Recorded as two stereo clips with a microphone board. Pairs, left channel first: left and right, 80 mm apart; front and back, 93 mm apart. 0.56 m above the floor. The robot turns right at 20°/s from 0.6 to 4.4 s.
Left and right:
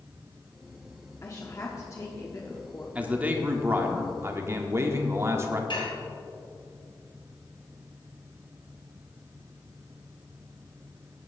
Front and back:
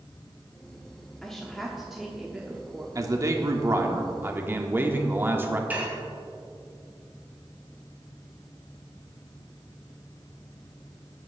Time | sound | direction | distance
1.2 | a woman speaking | 80° left | 1.1 m
3.0 | a man speaking | 155° right | 1.2 m
5.7 | dishes clattering | 110° left | 2.5 m